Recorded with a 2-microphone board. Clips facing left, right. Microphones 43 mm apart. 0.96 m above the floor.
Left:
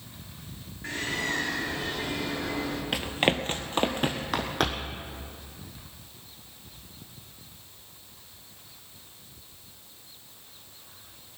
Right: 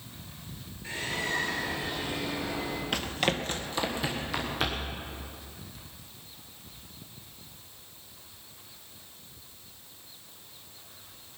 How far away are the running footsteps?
About 1.0 m.